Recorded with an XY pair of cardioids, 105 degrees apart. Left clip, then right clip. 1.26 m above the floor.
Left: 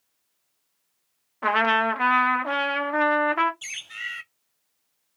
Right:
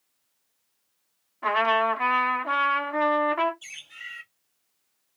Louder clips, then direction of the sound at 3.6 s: Left 7 dB; 65° left.